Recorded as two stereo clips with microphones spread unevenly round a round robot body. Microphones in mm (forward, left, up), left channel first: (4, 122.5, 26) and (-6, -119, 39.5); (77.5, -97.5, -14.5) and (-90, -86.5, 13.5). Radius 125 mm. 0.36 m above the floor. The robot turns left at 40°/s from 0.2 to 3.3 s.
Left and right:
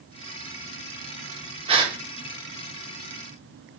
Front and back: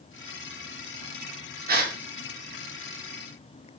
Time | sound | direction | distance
1.7 | a gasp | 155° right | 1.6 m